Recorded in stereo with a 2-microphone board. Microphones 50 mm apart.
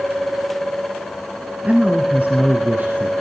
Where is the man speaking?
30° right (ahead or behind), 1.6 m; by 3.1 s 35° right (ahead or behind), 3 m.